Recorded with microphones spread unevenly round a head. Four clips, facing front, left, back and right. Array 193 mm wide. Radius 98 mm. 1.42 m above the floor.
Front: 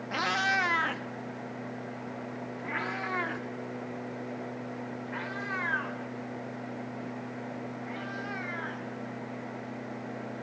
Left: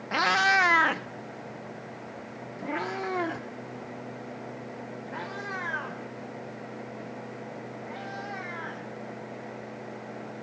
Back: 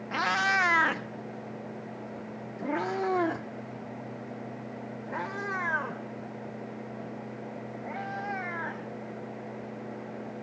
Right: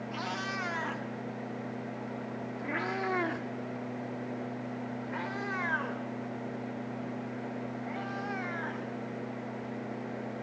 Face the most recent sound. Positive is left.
turn(degrees=-170)